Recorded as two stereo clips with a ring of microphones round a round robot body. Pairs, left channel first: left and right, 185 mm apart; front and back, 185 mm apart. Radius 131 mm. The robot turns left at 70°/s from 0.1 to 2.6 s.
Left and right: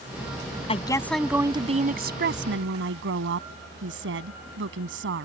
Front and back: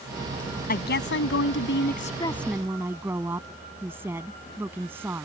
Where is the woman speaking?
35° left; by 5.3 s 100° right.